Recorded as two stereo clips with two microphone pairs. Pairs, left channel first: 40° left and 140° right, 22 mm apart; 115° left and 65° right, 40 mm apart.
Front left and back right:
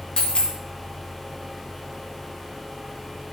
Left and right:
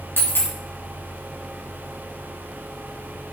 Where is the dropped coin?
90° left, 3.5 m.